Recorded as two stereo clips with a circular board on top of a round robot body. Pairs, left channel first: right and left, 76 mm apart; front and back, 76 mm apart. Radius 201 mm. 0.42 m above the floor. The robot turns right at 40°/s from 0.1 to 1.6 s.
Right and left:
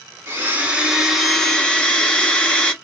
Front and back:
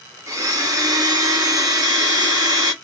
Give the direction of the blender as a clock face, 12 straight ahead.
7 o'clock.